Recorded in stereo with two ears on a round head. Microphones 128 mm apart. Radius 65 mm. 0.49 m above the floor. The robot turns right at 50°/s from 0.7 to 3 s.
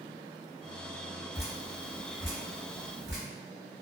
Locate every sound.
1.3 s dripping: centre (ahead or behind), 1.3 m; by 3.2 s 85° right, 1.3 m